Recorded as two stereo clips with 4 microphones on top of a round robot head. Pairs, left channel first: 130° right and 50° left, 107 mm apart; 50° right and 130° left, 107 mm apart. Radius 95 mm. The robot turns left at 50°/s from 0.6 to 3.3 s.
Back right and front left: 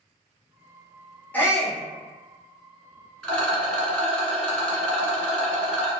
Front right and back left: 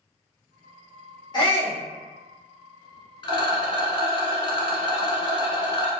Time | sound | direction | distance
1.3 | a shout | 60° right | 1.5 m
3.2 | a rattle | 50° right | 1.3 m